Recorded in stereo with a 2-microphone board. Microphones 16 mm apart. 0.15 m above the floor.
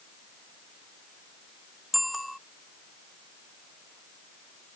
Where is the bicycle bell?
Centre (ahead or behind).